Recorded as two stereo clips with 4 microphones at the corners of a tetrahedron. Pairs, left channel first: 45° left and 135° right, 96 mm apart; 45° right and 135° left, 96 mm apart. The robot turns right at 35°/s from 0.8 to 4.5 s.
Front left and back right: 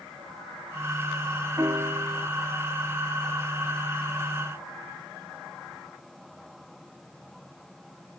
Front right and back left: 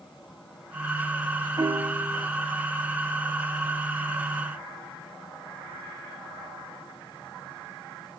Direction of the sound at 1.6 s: 175° left.